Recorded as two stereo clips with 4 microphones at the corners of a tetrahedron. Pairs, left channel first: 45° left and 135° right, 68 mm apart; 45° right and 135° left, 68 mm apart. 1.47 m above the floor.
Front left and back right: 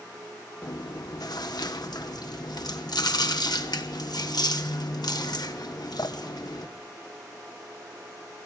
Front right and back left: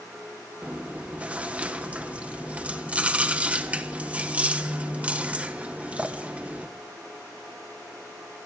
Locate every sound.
0.6 s chewing: 65° left, 1.4 m